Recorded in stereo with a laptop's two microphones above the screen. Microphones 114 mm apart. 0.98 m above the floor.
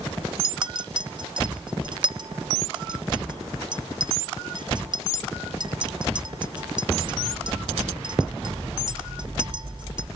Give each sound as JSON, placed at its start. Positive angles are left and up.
{"t": 0.4, "sound": "a clink", "side_deg": -40, "distance_m": 0.5}